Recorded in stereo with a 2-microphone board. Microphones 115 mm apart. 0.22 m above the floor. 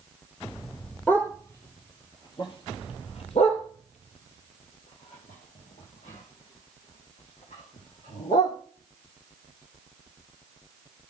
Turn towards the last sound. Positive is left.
turn(degrees=70)  # may be behind; listen again after turning